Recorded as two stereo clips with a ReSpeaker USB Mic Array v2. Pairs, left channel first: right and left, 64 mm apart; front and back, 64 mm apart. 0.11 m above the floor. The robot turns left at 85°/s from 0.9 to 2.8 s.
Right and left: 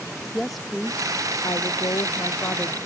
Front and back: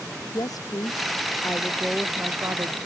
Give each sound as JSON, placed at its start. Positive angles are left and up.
{"t": 0.3, "sound": "a woman speaking", "azimuth_deg": 0}